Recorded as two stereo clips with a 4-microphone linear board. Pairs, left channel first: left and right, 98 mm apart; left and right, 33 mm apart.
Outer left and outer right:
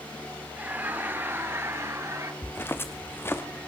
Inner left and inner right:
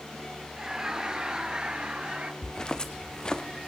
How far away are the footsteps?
About 1.0 m.